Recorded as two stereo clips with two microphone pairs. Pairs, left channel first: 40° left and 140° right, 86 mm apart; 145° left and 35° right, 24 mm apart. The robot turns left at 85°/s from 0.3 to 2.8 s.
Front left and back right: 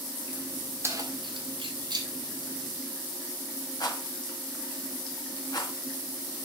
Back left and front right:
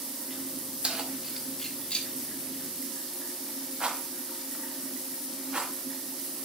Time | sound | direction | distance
0.8 | keys jangling | 80° right | 1.6 m
3.8 | a rattle | 10° left | 1.9 m